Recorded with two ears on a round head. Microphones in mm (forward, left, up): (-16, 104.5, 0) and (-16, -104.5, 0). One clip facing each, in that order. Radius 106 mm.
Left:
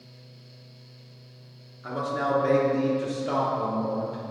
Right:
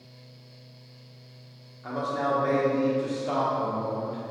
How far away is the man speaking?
About 1.4 m.